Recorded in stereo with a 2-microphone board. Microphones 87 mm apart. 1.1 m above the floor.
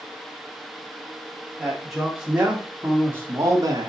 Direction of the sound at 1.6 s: Centre (ahead or behind).